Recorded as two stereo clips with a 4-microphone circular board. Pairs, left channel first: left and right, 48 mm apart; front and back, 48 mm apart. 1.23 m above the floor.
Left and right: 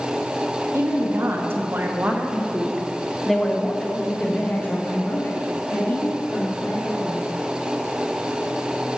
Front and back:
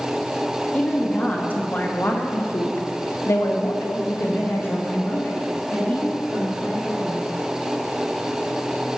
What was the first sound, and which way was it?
A woman speaking, 65° right.